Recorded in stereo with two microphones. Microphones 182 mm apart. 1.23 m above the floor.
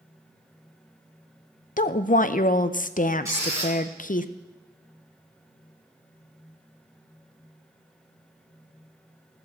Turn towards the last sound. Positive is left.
turn(degrees=-15)  # may be behind; listen again after turning